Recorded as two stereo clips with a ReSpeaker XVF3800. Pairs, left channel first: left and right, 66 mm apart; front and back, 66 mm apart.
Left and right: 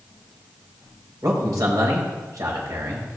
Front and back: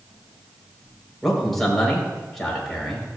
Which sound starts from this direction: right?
A man speaking, at 1.2 s.